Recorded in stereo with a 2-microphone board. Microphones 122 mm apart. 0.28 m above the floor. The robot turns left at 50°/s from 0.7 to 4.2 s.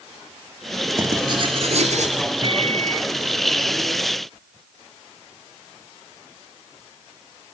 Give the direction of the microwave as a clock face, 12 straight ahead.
1 o'clock.